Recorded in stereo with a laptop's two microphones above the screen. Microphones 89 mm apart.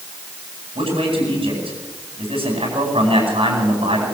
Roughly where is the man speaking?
Right.